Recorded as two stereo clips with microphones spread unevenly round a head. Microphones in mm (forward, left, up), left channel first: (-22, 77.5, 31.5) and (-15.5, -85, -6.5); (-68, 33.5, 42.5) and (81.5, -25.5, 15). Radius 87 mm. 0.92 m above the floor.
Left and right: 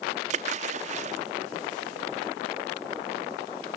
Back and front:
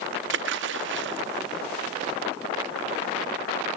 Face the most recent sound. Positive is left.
turn(degrees=-35)